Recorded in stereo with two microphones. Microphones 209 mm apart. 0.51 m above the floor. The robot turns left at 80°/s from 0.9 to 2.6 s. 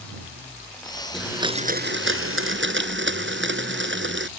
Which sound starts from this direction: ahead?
A blender, at 1.1 s.